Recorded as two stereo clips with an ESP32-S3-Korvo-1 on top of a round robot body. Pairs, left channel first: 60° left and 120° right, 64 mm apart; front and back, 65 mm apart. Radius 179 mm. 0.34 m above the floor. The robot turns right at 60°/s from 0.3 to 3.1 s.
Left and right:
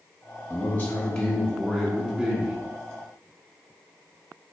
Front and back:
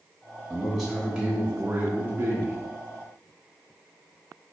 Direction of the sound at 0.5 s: 80° left.